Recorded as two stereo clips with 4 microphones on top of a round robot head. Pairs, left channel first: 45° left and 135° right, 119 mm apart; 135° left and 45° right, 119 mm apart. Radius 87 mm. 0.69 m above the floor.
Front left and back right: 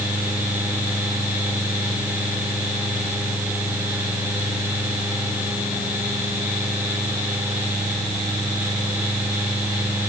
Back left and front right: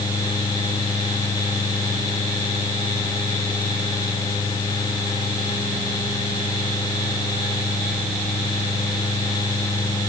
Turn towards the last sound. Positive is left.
No sound to turn to.